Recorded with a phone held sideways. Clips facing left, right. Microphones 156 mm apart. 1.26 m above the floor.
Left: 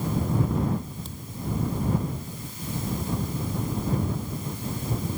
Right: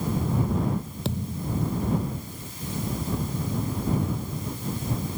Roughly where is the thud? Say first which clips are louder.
Right 4 dB; right.